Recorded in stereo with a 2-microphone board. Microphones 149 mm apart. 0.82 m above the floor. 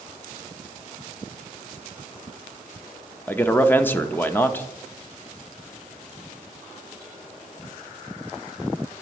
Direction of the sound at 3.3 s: 15° left (ahead or behind).